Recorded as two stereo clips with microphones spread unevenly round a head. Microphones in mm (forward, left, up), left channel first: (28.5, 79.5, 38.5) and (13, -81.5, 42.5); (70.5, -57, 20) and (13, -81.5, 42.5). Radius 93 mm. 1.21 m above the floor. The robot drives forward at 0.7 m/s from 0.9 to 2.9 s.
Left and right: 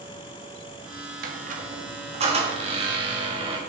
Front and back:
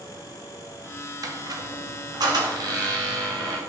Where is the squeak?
135° right, 1.3 m; by 3.6 s 155° right, 2.5 m.